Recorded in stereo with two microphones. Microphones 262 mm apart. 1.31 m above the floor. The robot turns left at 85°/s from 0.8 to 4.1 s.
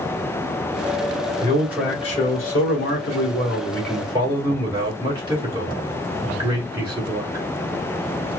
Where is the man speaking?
150° right, 2.0 m; by 7.5 s 15° right, 2.0 m.